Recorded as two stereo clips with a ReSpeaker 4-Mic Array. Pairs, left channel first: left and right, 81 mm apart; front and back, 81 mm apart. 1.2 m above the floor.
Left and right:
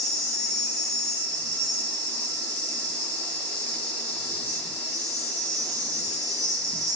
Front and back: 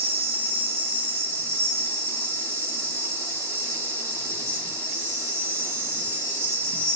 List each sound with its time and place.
0.0 s an insect: 155° left, 1.2 m